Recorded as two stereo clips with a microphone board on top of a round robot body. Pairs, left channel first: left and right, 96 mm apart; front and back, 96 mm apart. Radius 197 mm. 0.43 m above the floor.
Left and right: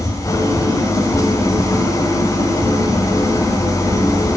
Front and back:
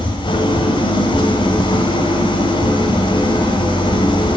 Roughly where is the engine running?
Ahead left.